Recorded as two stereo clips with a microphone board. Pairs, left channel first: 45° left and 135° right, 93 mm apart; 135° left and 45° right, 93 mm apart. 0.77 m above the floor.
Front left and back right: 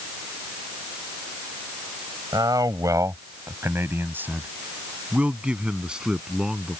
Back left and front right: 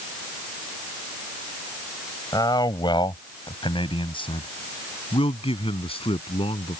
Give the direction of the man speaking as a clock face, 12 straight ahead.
6 o'clock.